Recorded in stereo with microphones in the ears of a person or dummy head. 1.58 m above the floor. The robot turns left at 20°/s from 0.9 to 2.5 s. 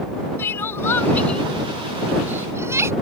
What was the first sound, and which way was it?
Crying, 15° left (ahead or behind).